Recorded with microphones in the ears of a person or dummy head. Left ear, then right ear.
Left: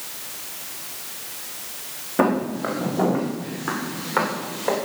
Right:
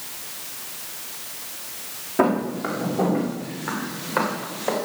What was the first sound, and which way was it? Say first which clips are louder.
Footsteps: even; 15° left (ahead or behind).